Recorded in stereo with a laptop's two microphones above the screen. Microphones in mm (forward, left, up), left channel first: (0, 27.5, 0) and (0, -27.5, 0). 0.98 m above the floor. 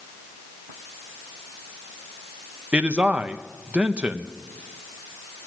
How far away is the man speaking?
About 0.6 m.